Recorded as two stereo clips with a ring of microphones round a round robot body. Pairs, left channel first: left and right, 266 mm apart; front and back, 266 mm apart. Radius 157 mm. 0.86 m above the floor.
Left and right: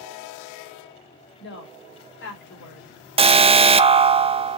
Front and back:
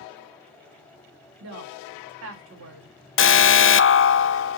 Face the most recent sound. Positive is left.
turn(degrees=-25)